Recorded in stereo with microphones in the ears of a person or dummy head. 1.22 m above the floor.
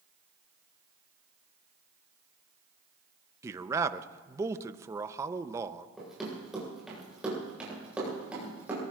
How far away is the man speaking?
About 0.6 m.